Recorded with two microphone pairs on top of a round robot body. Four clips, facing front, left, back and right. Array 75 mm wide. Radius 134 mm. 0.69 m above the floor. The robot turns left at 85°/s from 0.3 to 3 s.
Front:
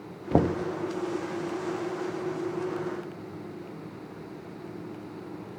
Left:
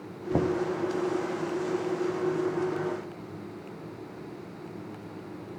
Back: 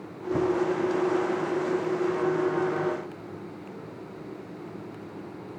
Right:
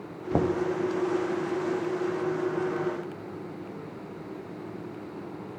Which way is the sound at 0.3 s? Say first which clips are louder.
Right 1 dB, even; straight ahead.